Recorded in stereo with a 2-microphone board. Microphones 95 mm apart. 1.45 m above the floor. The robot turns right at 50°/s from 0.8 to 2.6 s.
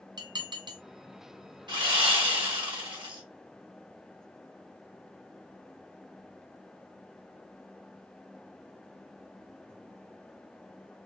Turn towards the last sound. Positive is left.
turn(degrees=-70)